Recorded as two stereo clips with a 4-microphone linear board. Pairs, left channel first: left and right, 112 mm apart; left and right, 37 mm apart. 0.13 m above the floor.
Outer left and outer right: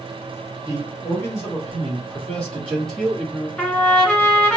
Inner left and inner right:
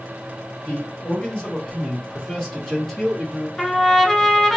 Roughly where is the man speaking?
Left.